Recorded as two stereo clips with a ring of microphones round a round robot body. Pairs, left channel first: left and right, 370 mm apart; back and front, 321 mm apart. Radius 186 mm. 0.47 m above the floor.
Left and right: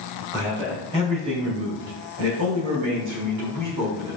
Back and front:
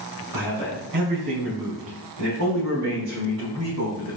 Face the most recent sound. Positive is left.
turn(degrees=-55)